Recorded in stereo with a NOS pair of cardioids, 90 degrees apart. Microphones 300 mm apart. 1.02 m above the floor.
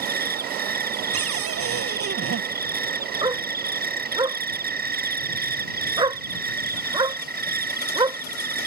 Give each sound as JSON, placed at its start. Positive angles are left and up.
{"t": 0.0, "sound": "an insect", "azimuth_deg": -35}
{"t": 1.1, "sound": "a cupboard door", "azimuth_deg": -55}
{"t": 3.2, "sound": "a dog barking", "azimuth_deg": -15}